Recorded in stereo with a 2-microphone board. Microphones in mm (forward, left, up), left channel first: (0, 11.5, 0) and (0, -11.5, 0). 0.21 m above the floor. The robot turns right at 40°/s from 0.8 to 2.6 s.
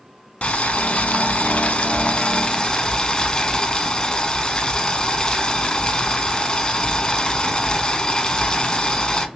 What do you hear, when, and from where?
0.4 s boiling: 70° left, 0.5 m; by 9.3 s 145° left, 0.5 m